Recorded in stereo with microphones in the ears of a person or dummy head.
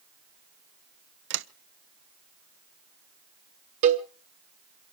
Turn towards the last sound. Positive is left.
turn(degrees=-45)  # may be behind; listen again after turning